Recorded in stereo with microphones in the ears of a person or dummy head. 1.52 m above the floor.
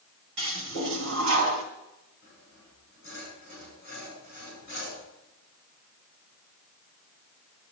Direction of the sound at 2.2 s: 50° left (ahead or behind).